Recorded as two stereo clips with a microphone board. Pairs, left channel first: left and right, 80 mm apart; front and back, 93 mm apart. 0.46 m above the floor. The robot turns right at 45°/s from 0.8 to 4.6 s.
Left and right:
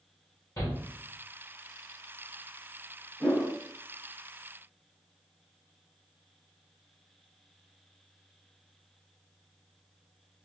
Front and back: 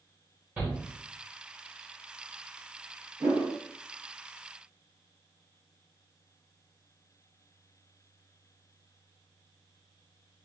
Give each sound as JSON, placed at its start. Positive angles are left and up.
{"t": 0.6, "sound": "a shout", "azimuth_deg": 120, "distance_m": 1.2}
{"t": 3.2, "sound": "a whoosh", "azimuth_deg": 165, "distance_m": 1.7}